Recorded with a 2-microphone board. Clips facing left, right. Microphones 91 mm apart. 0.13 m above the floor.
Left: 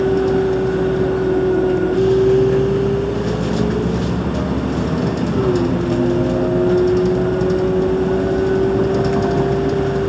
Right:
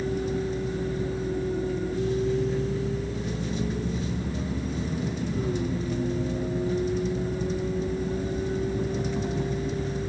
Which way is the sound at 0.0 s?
70° left (ahead or behind).